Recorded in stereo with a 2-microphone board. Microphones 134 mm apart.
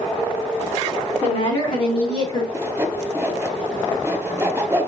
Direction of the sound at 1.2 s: 45° left (ahead or behind).